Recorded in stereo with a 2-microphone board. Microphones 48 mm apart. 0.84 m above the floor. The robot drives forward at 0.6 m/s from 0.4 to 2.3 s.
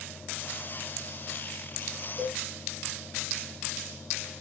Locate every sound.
2.2 s a cowbell: 5° left (ahead or behind), 1.6 m